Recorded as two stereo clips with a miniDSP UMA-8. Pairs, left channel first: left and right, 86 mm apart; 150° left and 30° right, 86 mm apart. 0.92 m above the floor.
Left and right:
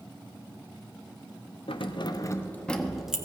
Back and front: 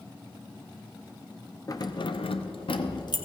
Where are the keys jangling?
100° left, 0.7 m; by 3.2 s 175° right, 1.0 m.